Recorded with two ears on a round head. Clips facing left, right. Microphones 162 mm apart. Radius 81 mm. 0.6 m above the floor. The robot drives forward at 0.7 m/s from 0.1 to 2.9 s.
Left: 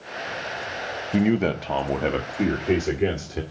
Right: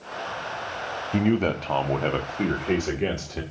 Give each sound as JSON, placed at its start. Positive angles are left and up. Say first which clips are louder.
{"t": 1.1, "sound": "a man speaking", "louder": "left 1 dB", "side_deg": 10, "distance_m": 0.6}